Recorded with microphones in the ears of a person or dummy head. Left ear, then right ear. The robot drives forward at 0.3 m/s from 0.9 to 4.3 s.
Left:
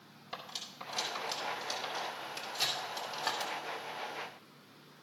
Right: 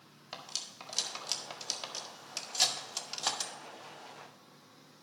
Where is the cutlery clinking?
30° right (ahead or behind), 2.0 m; by 3.5 s 45° right (ahead or behind), 1.4 m.